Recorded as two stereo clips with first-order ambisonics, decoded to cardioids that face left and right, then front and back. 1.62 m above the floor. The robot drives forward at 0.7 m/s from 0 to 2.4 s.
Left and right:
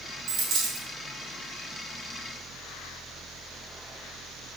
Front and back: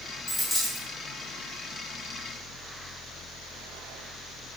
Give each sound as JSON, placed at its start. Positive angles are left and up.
{"t": 0.3, "sound": "a dropped coin", "azimuth_deg": -70, "distance_m": 1.8}